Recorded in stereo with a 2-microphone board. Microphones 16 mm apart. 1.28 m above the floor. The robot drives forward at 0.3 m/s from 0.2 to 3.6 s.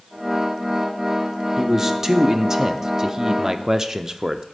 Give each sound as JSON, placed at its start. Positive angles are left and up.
{"t": 1.6, "sound": "a man speaking", "side_deg": -20, "distance_m": 0.9}